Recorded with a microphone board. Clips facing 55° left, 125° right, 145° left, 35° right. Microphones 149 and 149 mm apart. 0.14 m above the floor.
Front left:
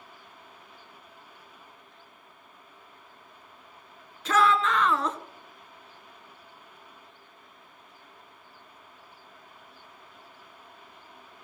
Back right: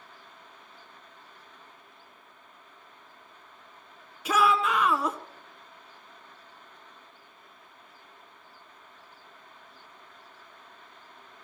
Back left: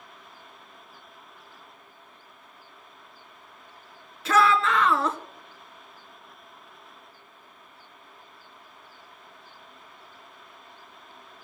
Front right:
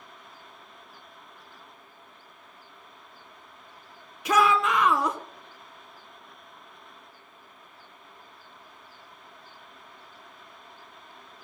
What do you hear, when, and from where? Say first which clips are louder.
4.2 s a shout: front left 1 dB, back left 1 dB; 75° right, 1.1 m